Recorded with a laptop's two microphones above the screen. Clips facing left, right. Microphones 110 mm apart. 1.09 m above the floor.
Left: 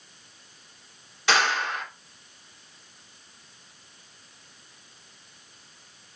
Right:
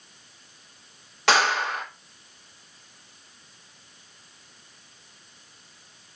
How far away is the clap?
About 2.5 m.